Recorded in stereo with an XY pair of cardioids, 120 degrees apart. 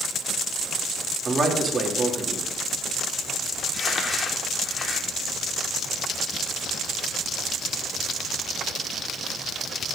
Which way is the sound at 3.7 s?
30° left.